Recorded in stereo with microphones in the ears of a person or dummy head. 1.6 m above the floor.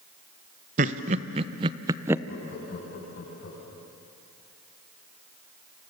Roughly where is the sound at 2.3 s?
Left.